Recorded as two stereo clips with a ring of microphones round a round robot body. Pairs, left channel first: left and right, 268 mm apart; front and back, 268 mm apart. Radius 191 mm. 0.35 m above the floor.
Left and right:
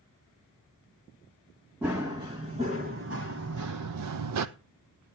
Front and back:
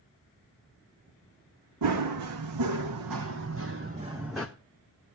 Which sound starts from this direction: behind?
Running footsteps, at 1.8 s.